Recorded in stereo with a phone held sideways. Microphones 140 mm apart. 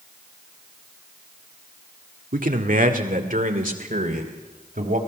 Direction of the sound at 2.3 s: 80° right.